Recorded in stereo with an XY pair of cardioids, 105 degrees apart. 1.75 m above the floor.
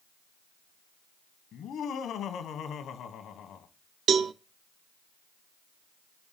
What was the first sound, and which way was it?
Laughter, 70° left.